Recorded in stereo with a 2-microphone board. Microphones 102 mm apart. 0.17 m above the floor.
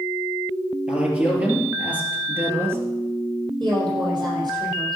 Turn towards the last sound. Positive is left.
turn(degrees=-45)  # may be behind; listen again after turning